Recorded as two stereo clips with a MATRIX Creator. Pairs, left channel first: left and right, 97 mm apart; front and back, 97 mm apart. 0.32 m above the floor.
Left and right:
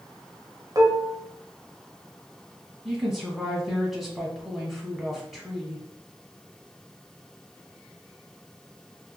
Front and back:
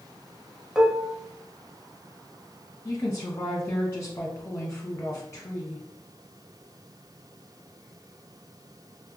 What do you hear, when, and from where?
0.8 s dishes clattering: 100° right, 0.6 m
2.9 s a woman speaking: straight ahead, 1.0 m